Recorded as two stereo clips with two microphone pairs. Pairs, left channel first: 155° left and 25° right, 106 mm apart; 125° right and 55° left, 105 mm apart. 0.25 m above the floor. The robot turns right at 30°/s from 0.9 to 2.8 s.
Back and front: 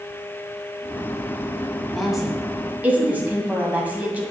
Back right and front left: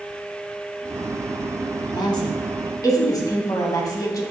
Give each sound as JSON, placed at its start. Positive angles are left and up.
{"t": 1.9, "sound": "a woman speaking", "azimuth_deg": -120, "distance_m": 1.3}